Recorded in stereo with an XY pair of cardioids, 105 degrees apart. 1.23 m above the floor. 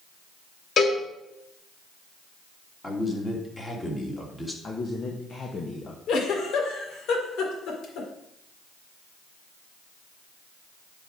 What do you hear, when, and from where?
0.8 s a cowbell: 50° left, 1.9 m
2.8 s a man speaking: 20° left, 2.5 m
4.6 s a man speaking: 40° left, 1.3 m
6.1 s a giggle: 70° left, 1.8 m